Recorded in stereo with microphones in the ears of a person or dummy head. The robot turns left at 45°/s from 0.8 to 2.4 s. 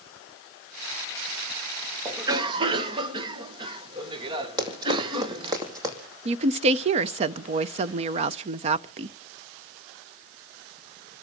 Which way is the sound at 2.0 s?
10° right (ahead or behind).